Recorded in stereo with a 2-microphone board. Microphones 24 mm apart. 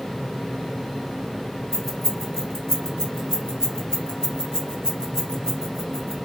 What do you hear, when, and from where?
1.7 s keys jangling: 20° left (ahead or behind), 1.5 m